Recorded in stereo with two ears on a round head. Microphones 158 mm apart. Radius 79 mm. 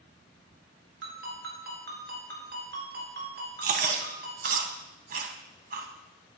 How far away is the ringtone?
About 5.5 m.